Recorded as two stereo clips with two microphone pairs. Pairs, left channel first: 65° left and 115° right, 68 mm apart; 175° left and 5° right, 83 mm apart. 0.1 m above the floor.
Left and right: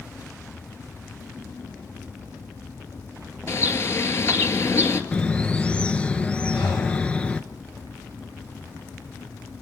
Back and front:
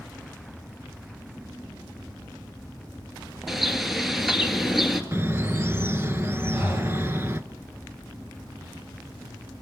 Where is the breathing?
55° left, 8.5 m.